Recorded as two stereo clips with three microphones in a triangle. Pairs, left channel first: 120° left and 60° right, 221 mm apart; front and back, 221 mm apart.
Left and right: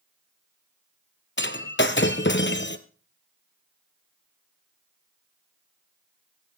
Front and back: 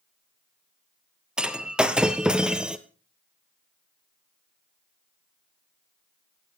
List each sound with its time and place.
1.4 s breaking glass: 95° left, 0.9 m